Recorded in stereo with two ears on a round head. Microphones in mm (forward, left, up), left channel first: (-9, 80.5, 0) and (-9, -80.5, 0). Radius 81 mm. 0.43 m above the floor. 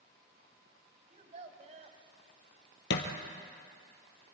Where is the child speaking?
40° right (ahead or behind), 2 m.